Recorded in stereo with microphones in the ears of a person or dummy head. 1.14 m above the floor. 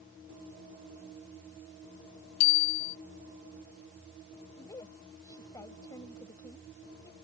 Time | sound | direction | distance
2.4 | a bicycle bell | 75° left (ahead or behind) | ?
4.6 | a woman speaking | 15° left (ahead or behind) | ?